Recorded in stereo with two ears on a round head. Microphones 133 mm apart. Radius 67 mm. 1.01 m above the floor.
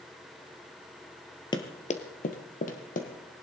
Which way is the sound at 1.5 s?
30° left (ahead or behind).